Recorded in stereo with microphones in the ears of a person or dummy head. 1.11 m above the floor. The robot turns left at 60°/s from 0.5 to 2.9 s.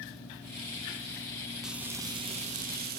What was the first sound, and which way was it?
Frying, 5° right.